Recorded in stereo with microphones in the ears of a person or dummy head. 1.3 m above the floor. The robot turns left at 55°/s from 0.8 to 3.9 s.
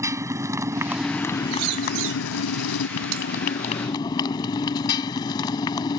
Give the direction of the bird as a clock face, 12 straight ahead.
3 o'clock.